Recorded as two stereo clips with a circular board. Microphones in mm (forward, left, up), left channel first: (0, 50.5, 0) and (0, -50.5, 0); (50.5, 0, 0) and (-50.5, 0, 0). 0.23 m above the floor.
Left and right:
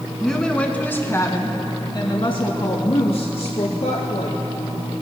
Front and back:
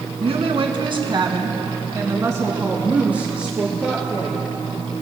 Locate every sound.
0.2 s a woman speaking: 175° left, 1.9 m; by 4.9 s 90° left, 3.5 m